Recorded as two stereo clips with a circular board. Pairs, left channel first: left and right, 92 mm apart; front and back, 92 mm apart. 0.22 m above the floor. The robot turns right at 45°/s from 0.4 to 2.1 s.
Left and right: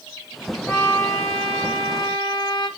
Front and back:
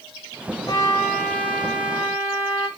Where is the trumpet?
30° left, 0.9 m; by 2.7 s 95° left, 0.9 m.